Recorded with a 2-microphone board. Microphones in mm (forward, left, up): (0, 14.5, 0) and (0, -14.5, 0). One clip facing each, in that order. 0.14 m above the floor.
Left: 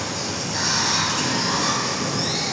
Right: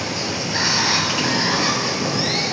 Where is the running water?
35° right (ahead or behind), 0.8 m.